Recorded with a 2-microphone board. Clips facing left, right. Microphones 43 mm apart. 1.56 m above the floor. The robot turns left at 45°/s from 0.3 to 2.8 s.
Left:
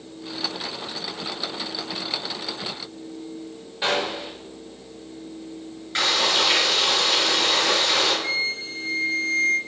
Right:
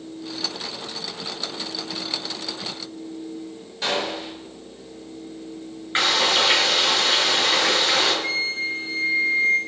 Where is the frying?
30° right (ahead or behind), 7 m.